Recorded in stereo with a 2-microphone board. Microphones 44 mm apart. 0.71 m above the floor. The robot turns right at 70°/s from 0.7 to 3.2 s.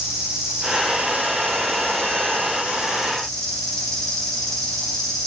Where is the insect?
165° right, 6.5 m; by 5.3 s 10° left, 6.5 m.